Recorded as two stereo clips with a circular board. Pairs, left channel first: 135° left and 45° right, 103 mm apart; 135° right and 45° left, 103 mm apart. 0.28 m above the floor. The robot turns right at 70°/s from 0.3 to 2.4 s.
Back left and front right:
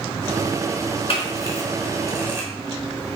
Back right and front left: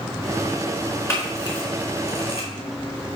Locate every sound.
1.1 s a camera shutter: 160° left, 3.5 m; by 2.5 s 110° right, 3.5 m